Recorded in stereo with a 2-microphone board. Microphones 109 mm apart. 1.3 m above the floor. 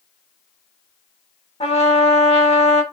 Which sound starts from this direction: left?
A trumpet, at 1.6 s.